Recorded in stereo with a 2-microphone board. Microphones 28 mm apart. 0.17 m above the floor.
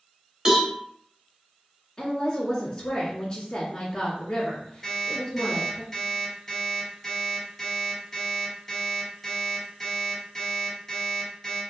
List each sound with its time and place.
0.5 s a cowbell: 30° right (ahead or behind), 1.1 m
2.0 s a woman speaking: 25° left (ahead or behind), 1.8 m
4.8 s an alarm clock: 15° left (ahead or behind), 2.0 m